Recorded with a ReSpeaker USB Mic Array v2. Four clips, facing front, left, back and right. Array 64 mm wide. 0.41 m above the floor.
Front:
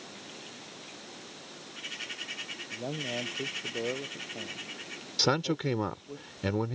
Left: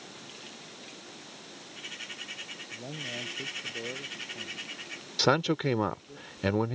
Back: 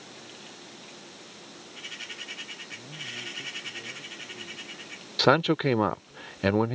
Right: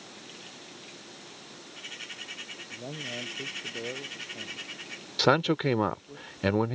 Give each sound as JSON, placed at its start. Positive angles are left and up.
{"t": 2.7, "sound": "a man speaking", "azimuth_deg": -10}
{"t": 5.2, "sound": "a man speaking", "azimuth_deg": -160}